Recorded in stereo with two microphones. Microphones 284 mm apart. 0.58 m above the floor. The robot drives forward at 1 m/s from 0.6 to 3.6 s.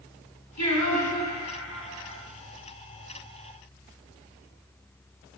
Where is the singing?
75° left (ahead or behind), 6 m; by 2.2 s 60° left (ahead or behind), 6.5 m.